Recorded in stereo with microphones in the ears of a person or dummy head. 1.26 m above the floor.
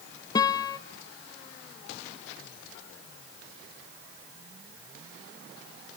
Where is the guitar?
20° left (ahead or behind), 0.6 m.